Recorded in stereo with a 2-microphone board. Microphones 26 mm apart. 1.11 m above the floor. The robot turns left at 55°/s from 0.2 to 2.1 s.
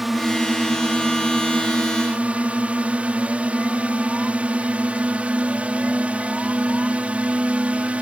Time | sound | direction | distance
0.0 | a drone | 5° right | ?